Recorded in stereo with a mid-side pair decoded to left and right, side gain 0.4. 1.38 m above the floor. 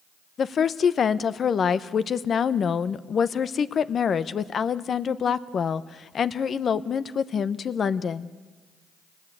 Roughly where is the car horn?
No car horn in this recording.